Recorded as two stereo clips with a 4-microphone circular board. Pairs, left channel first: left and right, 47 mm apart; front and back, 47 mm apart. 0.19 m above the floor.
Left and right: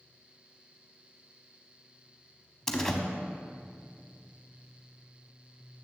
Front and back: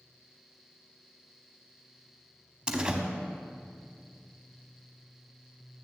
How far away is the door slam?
About 0.7 m.